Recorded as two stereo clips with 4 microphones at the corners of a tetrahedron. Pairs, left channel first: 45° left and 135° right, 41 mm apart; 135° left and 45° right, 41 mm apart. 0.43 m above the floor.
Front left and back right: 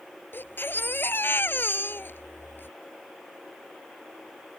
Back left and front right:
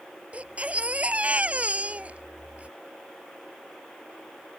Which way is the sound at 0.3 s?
10° left.